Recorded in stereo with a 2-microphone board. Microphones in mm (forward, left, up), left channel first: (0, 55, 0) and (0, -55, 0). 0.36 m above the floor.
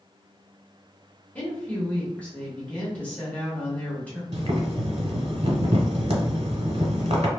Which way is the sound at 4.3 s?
75° right (ahead or behind).